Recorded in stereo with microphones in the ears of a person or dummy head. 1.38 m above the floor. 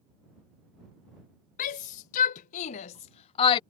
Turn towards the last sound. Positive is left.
turn(degrees=30)  # may be behind; listen again after turning